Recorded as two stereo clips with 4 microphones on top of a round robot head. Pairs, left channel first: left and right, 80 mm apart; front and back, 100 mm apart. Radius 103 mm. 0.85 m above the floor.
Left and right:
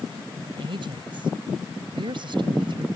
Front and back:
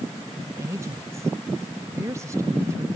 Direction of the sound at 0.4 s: 115° right.